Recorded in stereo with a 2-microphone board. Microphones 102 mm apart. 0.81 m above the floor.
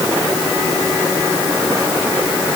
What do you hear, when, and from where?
Only background noise.